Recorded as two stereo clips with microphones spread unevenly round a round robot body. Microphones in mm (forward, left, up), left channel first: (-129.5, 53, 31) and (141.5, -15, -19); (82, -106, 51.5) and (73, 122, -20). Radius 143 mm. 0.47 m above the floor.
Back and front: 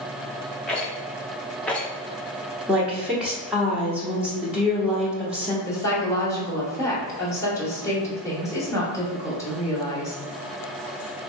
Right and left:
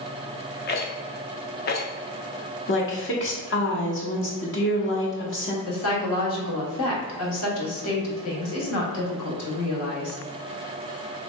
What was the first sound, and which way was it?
A rattle, 85° right.